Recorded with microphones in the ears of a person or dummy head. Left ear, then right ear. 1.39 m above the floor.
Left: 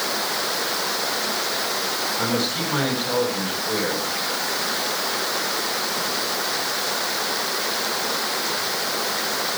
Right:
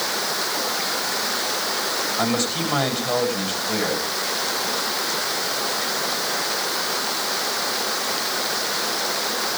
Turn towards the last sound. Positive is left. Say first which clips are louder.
# right 1 dB
turn(degrees=-15)  # may be behind; listen again after turning